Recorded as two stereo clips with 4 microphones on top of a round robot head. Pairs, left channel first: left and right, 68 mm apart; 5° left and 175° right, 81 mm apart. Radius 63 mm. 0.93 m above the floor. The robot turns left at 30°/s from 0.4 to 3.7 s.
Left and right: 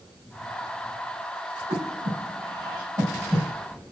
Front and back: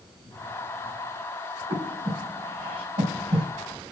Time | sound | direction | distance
1.7 | breathing | 115° right | 5 m